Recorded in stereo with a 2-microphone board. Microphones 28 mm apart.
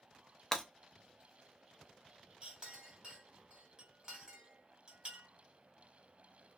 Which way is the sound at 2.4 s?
35° right (ahead or behind).